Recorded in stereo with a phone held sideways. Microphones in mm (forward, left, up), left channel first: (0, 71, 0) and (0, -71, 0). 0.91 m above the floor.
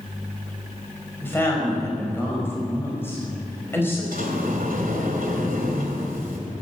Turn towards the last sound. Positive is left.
turn(degrees=-80)